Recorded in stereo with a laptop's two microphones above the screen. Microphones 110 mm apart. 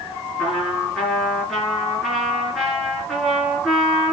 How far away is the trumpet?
About 5.5 m.